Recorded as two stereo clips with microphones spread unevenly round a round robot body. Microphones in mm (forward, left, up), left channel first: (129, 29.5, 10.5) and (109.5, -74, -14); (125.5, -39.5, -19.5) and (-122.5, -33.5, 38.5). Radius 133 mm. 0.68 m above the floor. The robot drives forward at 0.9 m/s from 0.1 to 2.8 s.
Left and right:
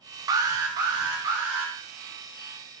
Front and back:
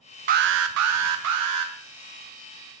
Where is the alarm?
120° right, 0.5 m; by 1.7 s 165° right, 1.6 m.